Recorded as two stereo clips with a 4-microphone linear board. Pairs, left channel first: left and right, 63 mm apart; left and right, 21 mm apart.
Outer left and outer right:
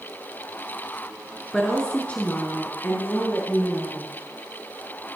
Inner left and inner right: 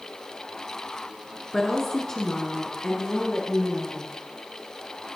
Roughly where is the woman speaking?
Centre.